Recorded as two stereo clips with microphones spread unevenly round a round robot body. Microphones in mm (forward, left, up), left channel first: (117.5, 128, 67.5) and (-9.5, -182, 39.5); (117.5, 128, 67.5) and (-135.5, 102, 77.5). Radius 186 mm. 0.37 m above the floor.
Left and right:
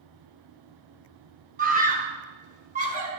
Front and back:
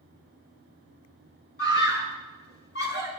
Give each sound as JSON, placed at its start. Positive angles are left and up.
{"t": 1.6, "sound": "a scream", "azimuth_deg": -50, "distance_m": 3.5}